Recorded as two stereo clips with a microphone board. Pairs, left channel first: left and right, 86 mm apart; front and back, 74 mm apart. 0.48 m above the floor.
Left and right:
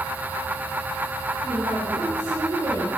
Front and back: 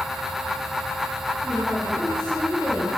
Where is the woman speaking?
85° right, 4 m.